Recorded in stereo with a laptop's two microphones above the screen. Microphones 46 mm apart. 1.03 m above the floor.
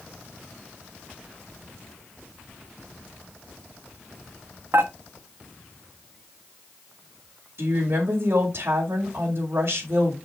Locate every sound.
4.7 s dishes clattering: 60° right (ahead or behind), 1.0 m
7.6 s a woman speaking: 55° right (ahead or behind), 2.0 m